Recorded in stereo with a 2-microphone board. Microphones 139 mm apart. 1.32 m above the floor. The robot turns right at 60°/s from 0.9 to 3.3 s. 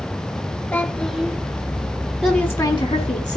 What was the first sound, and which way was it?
A child speaking, 15° left (ahead or behind).